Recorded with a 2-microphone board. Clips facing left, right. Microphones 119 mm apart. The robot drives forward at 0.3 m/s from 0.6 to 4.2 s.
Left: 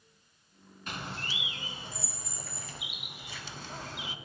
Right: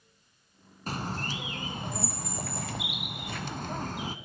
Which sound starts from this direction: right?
A bird, at 0.9 s.